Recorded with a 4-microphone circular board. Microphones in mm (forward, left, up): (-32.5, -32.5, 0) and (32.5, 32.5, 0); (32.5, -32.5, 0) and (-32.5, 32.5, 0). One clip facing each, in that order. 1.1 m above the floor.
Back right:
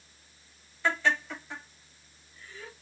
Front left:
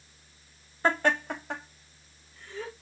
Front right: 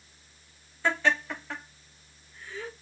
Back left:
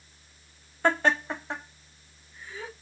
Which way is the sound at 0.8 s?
95° left.